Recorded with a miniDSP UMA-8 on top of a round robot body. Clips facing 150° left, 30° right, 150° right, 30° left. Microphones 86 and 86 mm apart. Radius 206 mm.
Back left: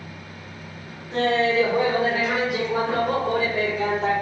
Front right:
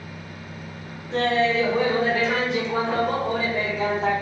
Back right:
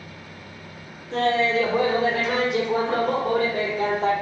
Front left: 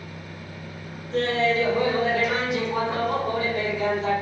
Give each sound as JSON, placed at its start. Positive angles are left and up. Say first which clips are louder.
{"t": 1.1, "sound": "laughter", "louder": "back left 1 dB, back right 2 dB", "azimuth_deg": -140, "distance_m": 4.0}